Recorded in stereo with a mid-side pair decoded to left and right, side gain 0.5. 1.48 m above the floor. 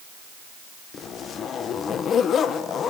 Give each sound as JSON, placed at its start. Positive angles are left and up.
{"t": 0.9, "sound": "a zipper", "azimuth_deg": 50, "distance_m": 1.5}